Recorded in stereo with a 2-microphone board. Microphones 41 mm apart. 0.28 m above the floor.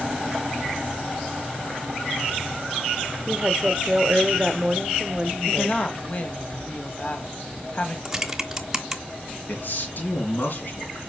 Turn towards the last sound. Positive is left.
turn(degrees=55)  # may be behind; listen again after turning